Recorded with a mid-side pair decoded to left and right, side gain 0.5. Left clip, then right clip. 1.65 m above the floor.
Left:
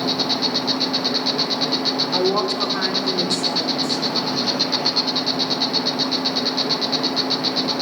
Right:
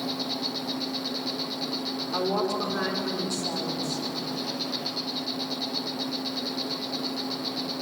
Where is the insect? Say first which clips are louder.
Left 10 dB; 65° left, 0.8 m.